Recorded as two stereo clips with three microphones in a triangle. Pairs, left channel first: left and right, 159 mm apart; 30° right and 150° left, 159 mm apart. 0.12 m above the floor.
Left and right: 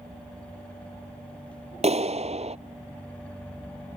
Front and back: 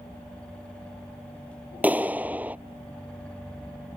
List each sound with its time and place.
1.8 s a clap: 130° right